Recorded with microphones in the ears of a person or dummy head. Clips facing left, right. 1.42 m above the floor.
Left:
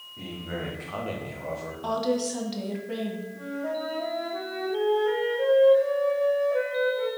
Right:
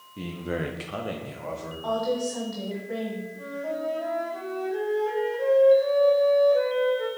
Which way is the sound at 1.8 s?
50° left (ahead or behind).